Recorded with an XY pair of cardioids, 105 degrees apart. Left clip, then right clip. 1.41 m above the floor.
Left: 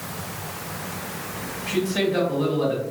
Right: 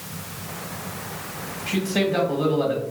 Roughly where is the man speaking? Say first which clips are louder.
Even; ahead right.